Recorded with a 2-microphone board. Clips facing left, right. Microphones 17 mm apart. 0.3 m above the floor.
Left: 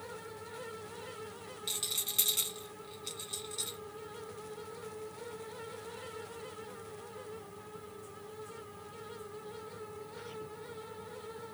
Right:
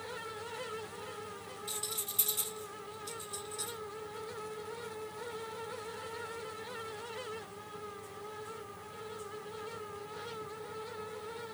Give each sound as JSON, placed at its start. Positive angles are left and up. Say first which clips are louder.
{"t": 1.7, "sound": "a rattle", "louder": "left 4 dB", "side_deg": 70, "distance_m": 1.0}